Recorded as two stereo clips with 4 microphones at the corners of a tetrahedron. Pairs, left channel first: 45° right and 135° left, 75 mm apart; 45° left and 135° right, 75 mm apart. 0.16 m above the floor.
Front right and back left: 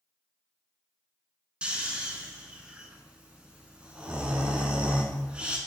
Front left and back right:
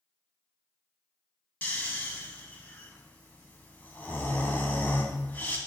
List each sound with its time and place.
1.6 s snoring: 80° left, 0.7 m